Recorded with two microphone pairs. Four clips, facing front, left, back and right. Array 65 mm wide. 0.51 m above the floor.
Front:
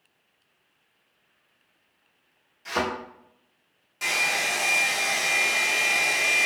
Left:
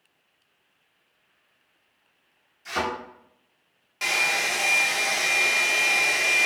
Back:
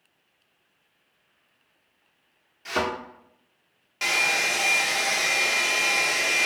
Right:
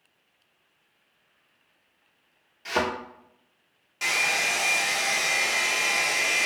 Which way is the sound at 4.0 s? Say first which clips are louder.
Left 1 dB, back 2 dB; 165° left.